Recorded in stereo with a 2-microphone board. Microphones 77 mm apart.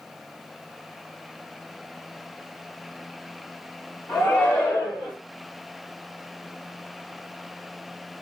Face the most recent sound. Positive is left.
turn(degrees=-25)  # may be behind; listen again after turning